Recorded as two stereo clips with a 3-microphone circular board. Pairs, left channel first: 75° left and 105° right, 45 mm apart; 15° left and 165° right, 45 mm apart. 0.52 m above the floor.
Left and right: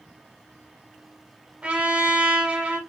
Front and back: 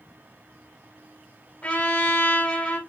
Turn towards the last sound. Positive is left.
turn(degrees=-40)